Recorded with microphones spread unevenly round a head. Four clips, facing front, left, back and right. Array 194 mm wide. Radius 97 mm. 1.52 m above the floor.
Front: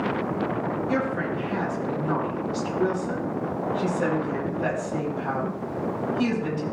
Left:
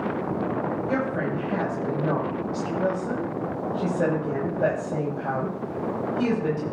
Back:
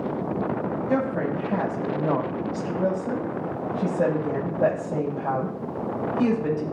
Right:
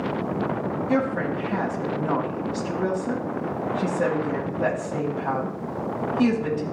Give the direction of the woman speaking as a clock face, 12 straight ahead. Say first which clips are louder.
Right 6 dB, back 4 dB; 7 o'clock.